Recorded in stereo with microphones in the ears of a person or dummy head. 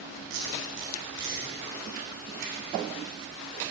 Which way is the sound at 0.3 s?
75° right (ahead or behind).